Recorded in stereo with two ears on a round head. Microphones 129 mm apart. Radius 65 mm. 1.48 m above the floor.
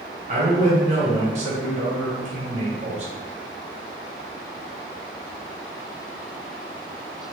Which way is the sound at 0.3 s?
55° right (ahead or behind).